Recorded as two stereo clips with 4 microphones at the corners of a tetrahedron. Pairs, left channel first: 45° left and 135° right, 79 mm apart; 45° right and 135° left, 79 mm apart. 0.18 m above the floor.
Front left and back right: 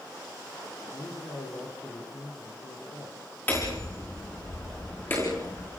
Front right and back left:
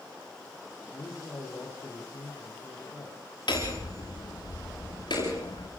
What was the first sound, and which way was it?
A man speaking, 15° left.